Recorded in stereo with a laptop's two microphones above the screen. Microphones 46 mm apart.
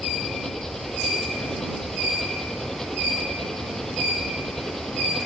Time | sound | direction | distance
0.0 | an engine running | 5° left (ahead or behind) | ?